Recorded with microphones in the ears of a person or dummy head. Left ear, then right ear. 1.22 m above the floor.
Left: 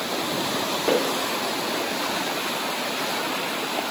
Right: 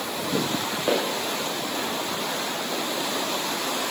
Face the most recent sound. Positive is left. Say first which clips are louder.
# left 2 dB
turn(degrees=-10)  # may be behind; listen again after turning